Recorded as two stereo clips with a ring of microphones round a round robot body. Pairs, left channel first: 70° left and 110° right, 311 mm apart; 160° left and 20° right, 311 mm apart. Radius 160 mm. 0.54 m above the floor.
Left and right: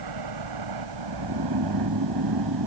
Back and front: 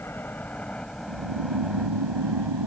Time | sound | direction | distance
0.0 | a helicopter | 120° right | ?
1.1 | snoring | 60° right | ?